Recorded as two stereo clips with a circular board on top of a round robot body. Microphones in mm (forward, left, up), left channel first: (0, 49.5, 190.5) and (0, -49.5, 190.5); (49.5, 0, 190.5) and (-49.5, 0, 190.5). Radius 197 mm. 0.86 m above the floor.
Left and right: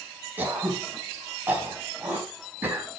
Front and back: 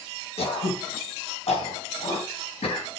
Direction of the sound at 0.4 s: 15° right.